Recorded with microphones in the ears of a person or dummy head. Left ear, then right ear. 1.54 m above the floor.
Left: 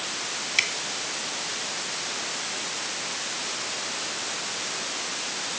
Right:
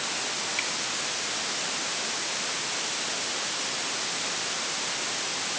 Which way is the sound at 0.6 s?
50° left (ahead or behind).